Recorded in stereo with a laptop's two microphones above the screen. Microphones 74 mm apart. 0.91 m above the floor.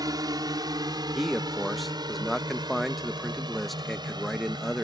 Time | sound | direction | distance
0.0 | a drone | 60° right (ahead or behind) | ?
1.1 | a man speaking | centre (ahead or behind) | ?